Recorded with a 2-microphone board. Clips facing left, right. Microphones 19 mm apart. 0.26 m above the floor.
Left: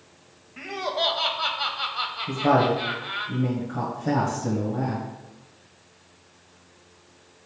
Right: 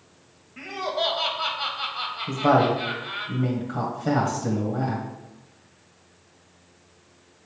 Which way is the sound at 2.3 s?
25° right (ahead or behind).